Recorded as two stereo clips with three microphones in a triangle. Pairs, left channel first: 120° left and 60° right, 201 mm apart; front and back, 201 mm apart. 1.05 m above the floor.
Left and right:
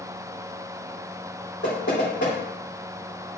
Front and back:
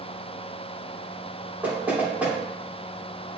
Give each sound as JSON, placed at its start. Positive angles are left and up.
{"t": 1.6, "sound": "knocking", "azimuth_deg": 100, "distance_m": 3.0}